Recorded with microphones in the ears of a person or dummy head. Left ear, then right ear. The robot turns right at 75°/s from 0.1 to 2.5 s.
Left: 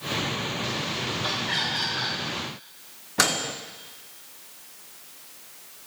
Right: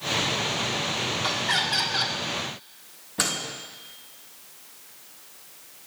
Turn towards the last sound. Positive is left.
turn(degrees=25)  # may be behind; listen again after turning